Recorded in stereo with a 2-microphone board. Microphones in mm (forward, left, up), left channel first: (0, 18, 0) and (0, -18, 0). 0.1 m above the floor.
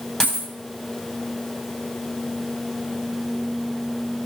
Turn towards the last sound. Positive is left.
turn(degrees=20)  # may be behind; listen again after turning